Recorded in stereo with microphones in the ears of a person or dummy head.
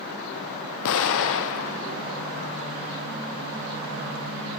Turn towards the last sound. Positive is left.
turn(degrees=70)  # may be behind; listen again after turning